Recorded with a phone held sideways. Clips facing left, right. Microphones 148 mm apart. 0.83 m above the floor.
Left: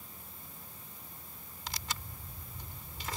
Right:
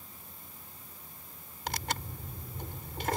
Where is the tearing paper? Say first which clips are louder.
Right 7 dB; 70° right (ahead or behind).